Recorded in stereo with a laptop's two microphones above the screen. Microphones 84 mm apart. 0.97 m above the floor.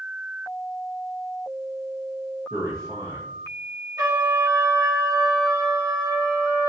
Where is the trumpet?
50° right (ahead or behind), 2.5 m.